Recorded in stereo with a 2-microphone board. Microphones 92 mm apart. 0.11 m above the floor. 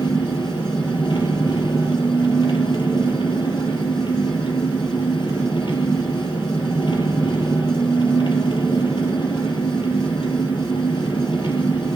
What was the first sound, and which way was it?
An engine running, 60° left (ahead or behind).